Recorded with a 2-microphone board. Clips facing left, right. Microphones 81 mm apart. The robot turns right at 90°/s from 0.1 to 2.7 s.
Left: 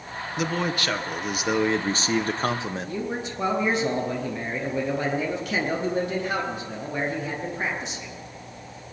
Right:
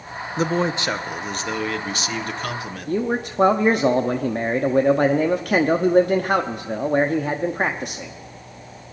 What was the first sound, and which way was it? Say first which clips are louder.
A man speaking: right 5 dB; 75° right.